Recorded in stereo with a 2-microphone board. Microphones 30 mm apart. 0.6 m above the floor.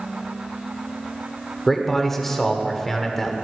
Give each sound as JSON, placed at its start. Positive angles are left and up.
{"t": 1.7, "sound": "a man speaking", "side_deg": 5, "distance_m": 1.5}